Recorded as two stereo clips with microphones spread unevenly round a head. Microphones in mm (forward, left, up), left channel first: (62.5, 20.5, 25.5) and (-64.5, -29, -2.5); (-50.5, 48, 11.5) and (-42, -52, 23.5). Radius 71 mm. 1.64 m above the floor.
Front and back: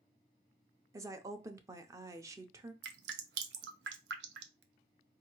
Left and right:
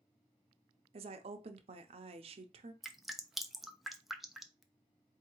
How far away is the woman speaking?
About 0.5 m.